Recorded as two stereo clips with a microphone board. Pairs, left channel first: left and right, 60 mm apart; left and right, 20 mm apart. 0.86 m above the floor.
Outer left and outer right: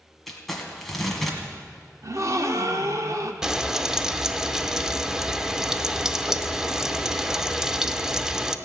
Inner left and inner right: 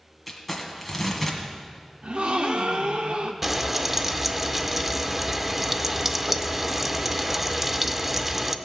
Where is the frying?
10° right (ahead or behind), 0.5 m.